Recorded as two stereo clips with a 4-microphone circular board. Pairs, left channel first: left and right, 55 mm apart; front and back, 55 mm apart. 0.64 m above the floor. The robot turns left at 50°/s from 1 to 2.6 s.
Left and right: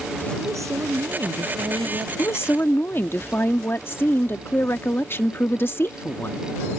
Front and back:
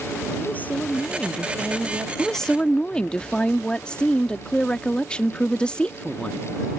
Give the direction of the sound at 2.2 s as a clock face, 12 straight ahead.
9 o'clock.